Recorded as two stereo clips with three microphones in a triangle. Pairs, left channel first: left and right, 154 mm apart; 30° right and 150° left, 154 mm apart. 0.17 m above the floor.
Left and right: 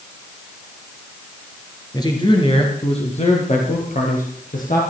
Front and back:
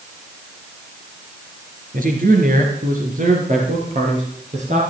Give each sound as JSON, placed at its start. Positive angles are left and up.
{"t": 1.9, "sound": "a man speaking", "azimuth_deg": 150, "distance_m": 3.5}